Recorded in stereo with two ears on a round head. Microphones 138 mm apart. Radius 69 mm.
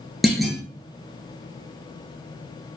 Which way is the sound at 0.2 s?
Centre (ahead or behind).